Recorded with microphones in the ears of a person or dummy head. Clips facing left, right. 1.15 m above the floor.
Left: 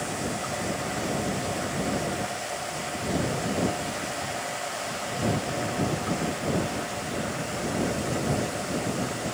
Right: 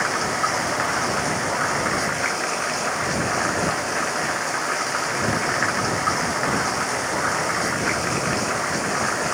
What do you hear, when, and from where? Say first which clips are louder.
0.0 s running water: right 5 dB; 85° right